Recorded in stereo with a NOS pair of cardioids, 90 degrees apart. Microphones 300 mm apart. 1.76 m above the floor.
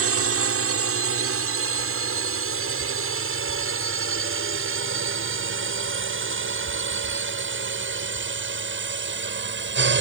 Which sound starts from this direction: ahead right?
A drone, at 0.0 s.